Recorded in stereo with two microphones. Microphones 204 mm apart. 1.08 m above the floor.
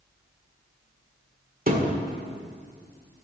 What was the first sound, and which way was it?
A thud, 45° right (ahead or behind).